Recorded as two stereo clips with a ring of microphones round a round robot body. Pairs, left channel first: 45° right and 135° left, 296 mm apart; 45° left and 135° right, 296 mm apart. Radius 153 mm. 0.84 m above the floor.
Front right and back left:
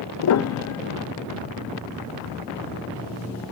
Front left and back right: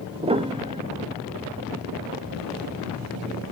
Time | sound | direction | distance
0.2 | a piano | 65° right | 0.5 m